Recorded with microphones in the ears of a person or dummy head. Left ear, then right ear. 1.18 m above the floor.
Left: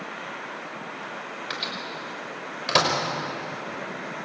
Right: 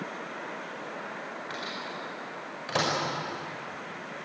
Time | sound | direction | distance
1.5 | a microwave | 40° left (ahead or behind) | 5.5 m